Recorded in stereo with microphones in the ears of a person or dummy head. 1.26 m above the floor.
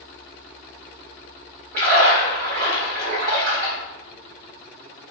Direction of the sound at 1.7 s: 55° right (ahead or behind).